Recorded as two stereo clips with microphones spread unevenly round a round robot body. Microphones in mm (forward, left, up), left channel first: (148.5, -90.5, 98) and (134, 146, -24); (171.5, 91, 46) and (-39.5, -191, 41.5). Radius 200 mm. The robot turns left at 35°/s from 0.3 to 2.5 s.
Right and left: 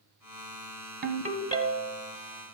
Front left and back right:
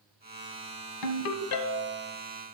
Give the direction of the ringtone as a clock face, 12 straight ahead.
10 o'clock.